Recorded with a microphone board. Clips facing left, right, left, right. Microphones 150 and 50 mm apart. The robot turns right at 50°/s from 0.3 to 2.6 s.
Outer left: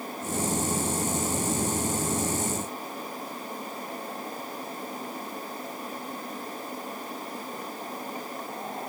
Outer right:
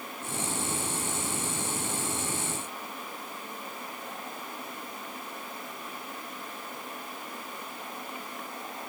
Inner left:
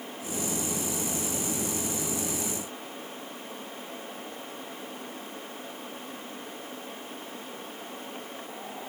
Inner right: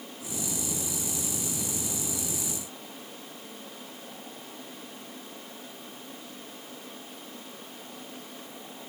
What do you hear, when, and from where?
Only background noise.